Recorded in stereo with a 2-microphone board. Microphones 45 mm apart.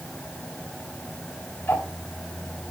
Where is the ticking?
75° left (ahead or behind), 3.5 m.